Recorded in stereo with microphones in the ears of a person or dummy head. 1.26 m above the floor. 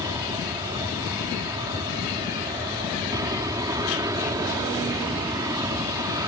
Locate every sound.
0.0 s an aircraft: 20° right (ahead or behind)